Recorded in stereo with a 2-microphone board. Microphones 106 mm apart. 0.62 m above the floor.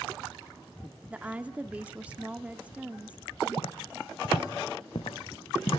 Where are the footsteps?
75° left (ahead or behind), 2 m; by 5.8 s 60° left (ahead or behind), 3.5 m.